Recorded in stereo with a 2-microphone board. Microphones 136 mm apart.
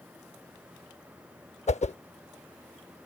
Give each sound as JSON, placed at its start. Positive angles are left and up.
{"t": 1.7, "sound": "a whoosh", "side_deg": 55}